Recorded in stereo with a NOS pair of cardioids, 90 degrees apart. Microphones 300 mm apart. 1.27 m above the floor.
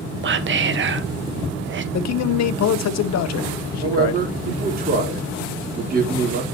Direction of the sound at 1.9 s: 65° left.